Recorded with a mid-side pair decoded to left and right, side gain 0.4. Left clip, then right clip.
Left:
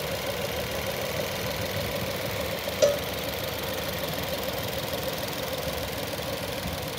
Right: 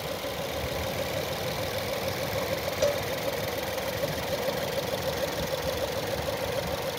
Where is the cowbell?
45° left, 0.6 m.